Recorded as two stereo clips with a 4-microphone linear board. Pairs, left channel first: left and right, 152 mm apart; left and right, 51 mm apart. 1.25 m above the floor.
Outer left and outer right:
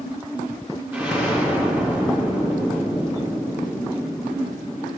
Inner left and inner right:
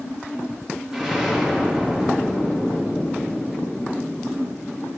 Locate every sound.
0.9 s an explosion: 15° right (ahead or behind), 2.5 m